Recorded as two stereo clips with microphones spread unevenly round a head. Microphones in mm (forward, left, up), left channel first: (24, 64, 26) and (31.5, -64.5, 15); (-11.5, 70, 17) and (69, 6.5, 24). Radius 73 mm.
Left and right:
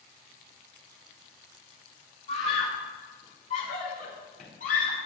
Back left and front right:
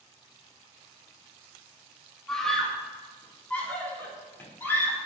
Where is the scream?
55° left, 2.5 m; by 5.0 s 75° left, 5 m.